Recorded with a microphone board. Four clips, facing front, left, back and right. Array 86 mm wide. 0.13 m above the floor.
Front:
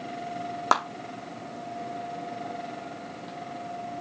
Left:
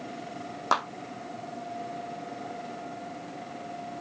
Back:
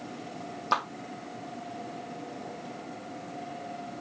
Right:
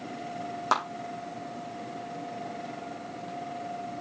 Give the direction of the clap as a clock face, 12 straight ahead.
12 o'clock.